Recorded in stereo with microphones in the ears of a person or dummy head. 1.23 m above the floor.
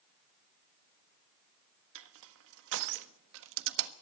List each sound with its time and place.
1.9 s crushing: 80° right, 1.4 m